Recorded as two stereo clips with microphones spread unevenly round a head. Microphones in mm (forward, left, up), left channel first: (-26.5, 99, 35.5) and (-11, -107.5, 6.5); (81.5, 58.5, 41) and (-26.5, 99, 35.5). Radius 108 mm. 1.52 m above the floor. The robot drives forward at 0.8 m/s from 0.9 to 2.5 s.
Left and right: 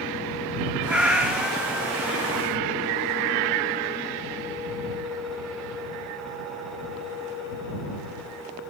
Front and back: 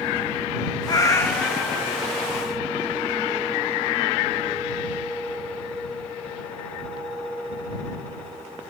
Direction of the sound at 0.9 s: 10° left.